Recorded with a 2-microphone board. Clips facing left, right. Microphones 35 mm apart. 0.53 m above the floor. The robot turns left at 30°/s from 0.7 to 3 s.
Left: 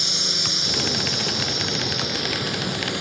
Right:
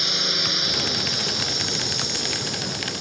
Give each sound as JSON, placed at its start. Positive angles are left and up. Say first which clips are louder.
{"t": 0.0, "sound": "a drone", "louder": "right 1 dB", "azimuth_deg": -160}